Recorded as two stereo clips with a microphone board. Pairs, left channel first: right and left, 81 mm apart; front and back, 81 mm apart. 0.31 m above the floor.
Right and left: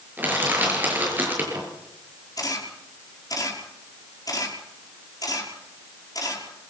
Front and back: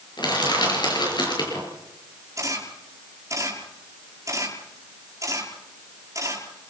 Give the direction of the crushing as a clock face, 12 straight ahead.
11 o'clock.